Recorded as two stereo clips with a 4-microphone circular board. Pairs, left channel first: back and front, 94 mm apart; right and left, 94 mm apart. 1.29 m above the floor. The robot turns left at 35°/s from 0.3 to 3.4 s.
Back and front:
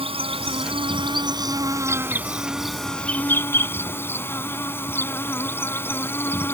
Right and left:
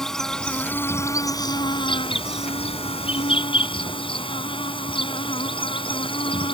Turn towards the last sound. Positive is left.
turn(degrees=-115)